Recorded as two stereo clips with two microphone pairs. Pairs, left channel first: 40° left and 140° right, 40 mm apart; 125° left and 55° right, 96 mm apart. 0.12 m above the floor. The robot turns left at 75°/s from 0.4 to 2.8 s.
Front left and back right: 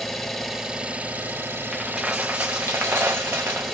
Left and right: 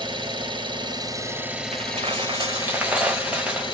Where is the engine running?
40° right, 1.1 m; by 3.7 s 140° left, 1.1 m.